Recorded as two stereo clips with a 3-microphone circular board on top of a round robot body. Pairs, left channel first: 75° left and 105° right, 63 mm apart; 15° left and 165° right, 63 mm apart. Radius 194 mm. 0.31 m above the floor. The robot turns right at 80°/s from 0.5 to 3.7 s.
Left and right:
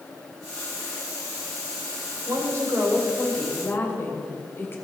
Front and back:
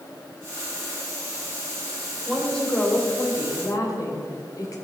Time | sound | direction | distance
2.3 | a woman speaking | 90° right | 3 m